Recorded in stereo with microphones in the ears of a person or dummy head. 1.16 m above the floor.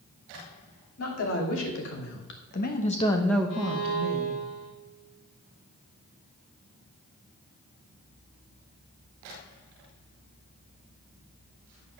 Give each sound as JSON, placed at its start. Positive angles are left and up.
{"t": 1.0, "sound": "a woman speaking", "side_deg": 75, "distance_m": 2.5}
{"t": 3.5, "sound": "a violin", "side_deg": 65, "distance_m": 3.0}